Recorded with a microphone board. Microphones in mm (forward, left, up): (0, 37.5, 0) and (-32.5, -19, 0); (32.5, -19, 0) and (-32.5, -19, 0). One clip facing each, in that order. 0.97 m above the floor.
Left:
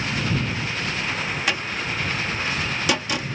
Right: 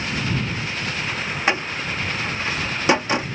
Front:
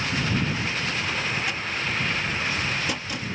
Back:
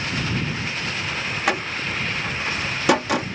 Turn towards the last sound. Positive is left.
turn(degrees=180)